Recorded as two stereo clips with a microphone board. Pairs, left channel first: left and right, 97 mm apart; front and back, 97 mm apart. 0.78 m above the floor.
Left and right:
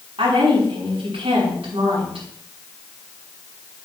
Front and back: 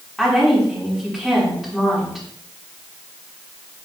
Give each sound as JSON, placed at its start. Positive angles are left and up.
{"t": 0.2, "sound": "a woman speaking", "azimuth_deg": -90, "distance_m": 6.0}